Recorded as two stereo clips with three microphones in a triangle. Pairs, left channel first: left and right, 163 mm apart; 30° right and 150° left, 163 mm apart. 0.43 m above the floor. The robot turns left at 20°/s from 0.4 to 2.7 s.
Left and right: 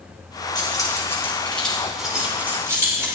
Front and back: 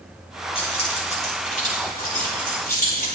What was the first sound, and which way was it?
Keys jangling, 25° left.